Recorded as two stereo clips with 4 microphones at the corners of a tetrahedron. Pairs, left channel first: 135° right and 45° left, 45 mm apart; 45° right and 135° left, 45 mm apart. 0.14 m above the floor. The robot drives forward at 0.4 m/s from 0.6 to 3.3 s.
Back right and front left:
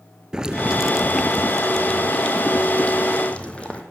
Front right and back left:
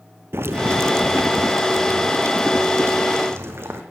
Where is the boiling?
115° left, 0.5 m; by 3.8 s 160° left, 1.4 m.